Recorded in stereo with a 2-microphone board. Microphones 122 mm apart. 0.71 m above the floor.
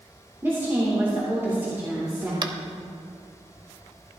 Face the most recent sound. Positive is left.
turn(degrees=-40)  # may be behind; listen again after turning